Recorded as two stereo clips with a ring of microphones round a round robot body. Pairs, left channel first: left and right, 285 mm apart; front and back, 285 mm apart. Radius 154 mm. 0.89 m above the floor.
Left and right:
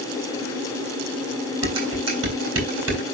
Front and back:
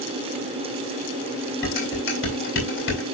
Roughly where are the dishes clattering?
Ahead right.